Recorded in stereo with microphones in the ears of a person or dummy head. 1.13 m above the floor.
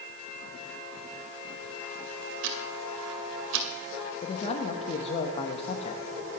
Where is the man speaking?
35° left (ahead or behind), 1.1 m.